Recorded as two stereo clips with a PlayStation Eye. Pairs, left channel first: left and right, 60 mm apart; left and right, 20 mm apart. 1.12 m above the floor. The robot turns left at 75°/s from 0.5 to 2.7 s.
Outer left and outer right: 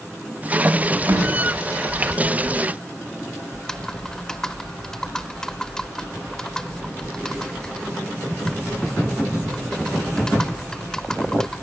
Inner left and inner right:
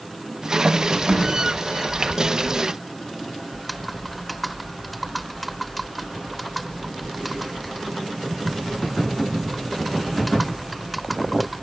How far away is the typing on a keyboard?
About 0.8 m.